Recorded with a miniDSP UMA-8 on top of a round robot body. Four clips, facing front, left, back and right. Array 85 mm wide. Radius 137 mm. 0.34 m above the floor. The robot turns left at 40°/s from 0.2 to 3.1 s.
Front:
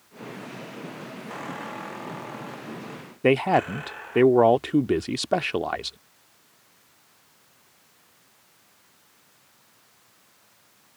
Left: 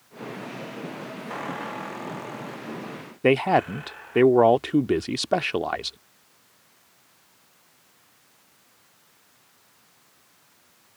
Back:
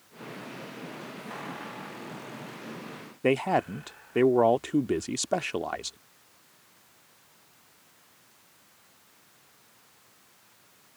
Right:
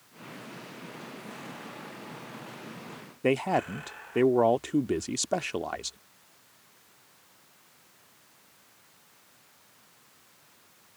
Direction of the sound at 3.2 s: 60° left.